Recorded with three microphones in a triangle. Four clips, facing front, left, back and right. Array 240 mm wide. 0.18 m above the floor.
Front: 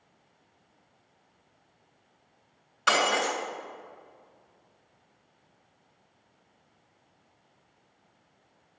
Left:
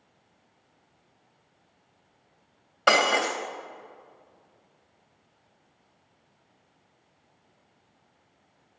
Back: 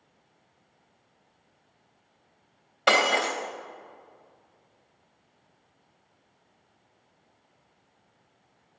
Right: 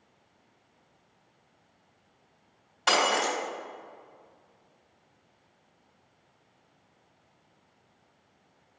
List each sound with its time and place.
2.9 s breaking glass: 130° left, 2.5 m